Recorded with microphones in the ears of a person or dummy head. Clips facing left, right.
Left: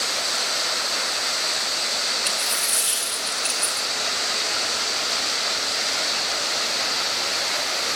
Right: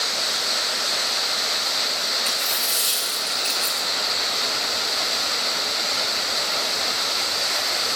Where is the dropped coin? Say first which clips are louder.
Even; 15° left (ahead or behind), 2.5 m.